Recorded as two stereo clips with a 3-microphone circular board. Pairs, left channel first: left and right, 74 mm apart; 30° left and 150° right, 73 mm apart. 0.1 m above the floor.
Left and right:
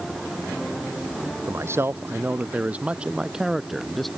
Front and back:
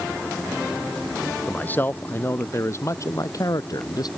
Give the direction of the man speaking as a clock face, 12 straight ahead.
1 o'clock.